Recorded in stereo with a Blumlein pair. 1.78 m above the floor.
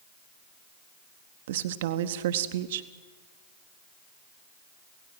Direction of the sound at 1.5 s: 55° right.